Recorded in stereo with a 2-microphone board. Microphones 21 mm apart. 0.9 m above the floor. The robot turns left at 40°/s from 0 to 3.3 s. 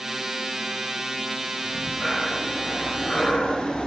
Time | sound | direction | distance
1.6 | breathing | 165° right | 2.0 m